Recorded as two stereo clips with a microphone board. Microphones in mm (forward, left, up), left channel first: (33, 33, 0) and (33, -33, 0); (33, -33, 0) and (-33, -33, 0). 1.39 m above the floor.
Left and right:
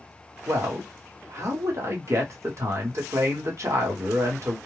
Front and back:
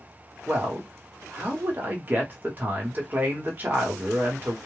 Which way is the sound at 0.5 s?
125° right.